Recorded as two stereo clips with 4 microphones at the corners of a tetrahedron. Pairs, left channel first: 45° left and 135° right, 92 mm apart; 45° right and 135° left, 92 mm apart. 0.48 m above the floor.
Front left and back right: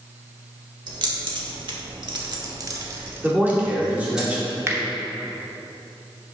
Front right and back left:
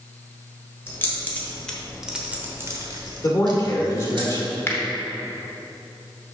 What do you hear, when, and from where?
0.9 s keys jangling: 105° right, 1.4 m; by 4.2 s 140° left, 1.5 m
3.2 s a man speaking: 70° right, 1.6 m
4.7 s a finger snap: 90° right, 0.9 m